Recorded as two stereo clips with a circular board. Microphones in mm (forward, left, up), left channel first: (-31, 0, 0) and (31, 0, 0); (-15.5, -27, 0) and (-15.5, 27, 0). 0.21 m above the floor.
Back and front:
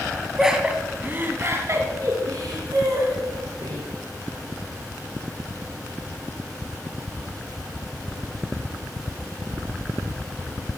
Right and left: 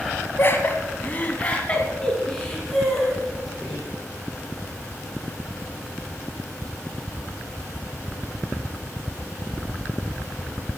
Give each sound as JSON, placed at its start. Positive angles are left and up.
{"t": 0.4, "sound": "laughter", "azimuth_deg": -80, "distance_m": 2.0}